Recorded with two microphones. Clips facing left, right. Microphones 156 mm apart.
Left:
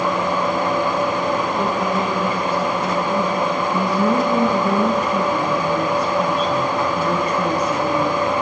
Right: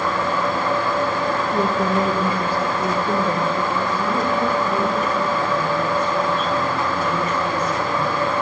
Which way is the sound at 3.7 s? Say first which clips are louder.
Left 4 dB; 40° left (ahead or behind).